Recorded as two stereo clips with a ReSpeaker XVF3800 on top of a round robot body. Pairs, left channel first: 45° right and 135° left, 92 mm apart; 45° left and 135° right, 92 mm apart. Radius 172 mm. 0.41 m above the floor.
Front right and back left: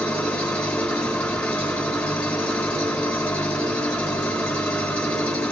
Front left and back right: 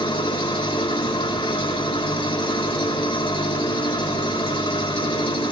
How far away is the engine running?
About 4.5 m.